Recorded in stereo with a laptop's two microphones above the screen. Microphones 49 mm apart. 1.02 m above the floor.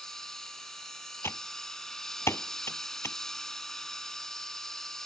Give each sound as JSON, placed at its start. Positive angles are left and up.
{"t": 0.0, "sound": "a machine running", "side_deg": 10}
{"t": 1.2, "sound": "typing on a keyboard", "side_deg": 55}